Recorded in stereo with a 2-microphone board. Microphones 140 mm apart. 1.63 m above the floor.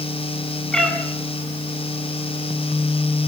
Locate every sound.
0.7 s a cat meowing: 5° left (ahead or behind), 9 m